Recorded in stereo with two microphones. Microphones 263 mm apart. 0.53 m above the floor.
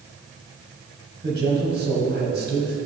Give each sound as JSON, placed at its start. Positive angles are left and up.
{"t": 1.2, "sound": "a man speaking", "side_deg": -40, "distance_m": 3.0}